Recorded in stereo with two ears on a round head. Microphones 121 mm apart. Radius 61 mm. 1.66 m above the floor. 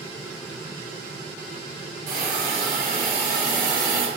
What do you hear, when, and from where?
2.1 s a hiss: 70° right (ahead or behind), 3.5 m